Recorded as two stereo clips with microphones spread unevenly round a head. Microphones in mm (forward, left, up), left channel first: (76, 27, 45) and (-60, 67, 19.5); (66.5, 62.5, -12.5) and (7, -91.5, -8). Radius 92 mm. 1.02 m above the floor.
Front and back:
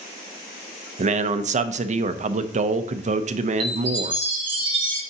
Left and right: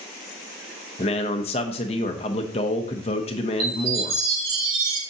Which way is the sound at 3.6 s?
125° right.